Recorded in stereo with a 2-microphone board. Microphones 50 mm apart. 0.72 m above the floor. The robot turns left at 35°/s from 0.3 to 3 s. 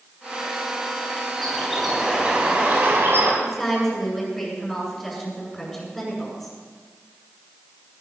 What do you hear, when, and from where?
1.4 s a bird: 10° left, 4 m; by 3.3 s 50° right, 4 m
3.4 s a woman speaking: 10° left (ahead or behind), 7.5 m